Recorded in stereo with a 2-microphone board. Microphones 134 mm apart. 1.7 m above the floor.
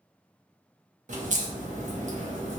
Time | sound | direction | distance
1.1 | a crack | 65° right (ahead or behind) | 0.7 m